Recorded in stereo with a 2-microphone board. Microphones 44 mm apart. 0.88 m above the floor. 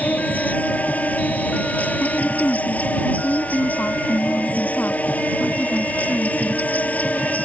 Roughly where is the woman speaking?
Left.